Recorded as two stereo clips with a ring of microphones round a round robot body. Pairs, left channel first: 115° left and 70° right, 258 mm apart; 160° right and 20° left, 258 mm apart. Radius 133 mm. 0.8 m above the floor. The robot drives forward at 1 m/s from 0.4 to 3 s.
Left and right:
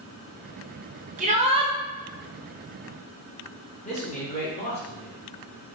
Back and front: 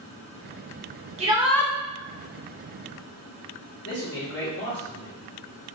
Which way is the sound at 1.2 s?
25° right.